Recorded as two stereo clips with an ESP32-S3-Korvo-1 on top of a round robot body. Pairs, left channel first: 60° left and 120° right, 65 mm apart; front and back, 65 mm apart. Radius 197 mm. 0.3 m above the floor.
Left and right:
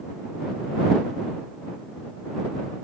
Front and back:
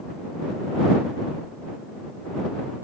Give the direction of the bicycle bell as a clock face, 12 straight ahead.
I don't hear a bicycle bell.